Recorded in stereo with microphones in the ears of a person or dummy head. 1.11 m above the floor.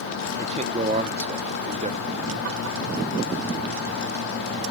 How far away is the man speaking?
About 0.6 m.